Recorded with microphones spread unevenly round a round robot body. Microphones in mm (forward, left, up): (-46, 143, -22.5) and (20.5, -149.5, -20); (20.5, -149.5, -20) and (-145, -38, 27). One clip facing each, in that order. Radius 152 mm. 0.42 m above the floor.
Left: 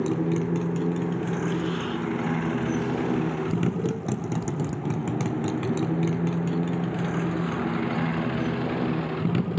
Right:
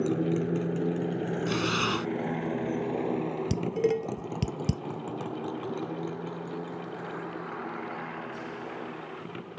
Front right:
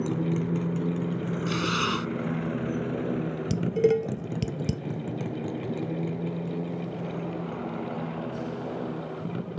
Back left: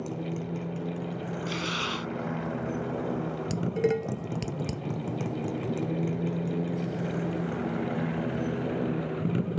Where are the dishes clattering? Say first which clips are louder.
Even, front right 4 dB; 85° right.